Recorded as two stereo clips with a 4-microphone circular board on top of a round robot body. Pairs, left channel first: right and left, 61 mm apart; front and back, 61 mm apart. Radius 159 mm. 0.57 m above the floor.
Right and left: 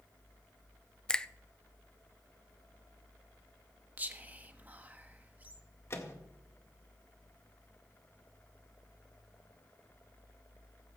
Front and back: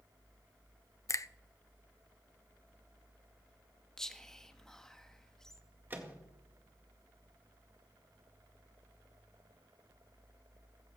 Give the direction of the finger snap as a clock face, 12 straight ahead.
1 o'clock.